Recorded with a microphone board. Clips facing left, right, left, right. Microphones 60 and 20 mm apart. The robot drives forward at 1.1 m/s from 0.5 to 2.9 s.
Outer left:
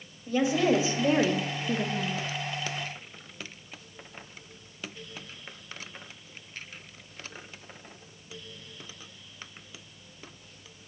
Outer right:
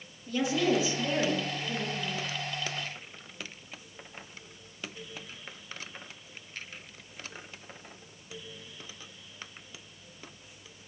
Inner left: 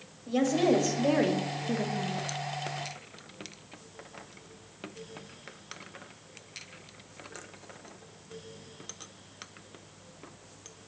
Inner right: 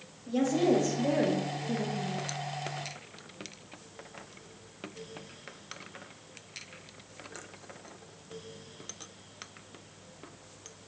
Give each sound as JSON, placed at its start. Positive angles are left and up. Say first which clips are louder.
{"t": 0.3, "sound": "a woman speaking", "louder": "outer left 3 dB, inner left 1 dB", "side_deg": 25, "distance_m": 1.6}